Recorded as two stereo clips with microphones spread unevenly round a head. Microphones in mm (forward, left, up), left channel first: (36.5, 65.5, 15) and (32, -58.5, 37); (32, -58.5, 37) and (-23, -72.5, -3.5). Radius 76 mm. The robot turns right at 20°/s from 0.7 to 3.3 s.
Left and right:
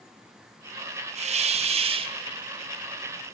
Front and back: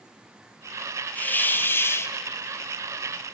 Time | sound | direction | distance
1.1 | a hiss | 70° right | 0.5 m